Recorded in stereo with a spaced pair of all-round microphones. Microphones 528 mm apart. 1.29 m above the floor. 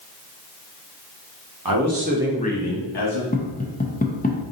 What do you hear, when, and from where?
1.6 s a man speaking: 45° right (ahead or behind), 1.0 m; by 3.2 s 60° left (ahead or behind), 1.2 m
3.3 s tapping: 15° left (ahead or behind), 0.5 m